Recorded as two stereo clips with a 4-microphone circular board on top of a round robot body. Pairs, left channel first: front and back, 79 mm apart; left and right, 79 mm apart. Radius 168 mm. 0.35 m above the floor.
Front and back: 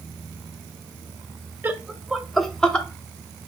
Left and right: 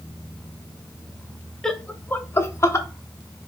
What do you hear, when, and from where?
1.6 s laughter: 165° left, 0.8 m; by 2.9 s 65° left, 1.0 m